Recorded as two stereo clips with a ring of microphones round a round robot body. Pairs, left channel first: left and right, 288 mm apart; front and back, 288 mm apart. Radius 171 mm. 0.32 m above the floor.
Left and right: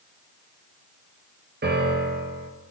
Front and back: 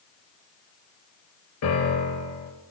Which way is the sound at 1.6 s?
35° right.